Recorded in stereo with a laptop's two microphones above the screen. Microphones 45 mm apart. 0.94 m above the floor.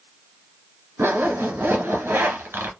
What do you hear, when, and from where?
1.0 s a zipper: 60° right (ahead or behind), 1.2 m